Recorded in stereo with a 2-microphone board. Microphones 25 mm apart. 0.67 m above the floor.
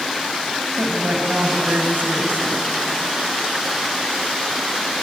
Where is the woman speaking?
80° right, 3.5 m.